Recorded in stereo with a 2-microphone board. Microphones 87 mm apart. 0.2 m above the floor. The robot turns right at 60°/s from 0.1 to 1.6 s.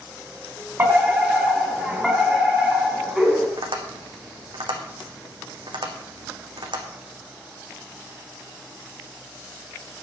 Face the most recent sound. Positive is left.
turn(degrees=-70)  # may be behind; listen again after turning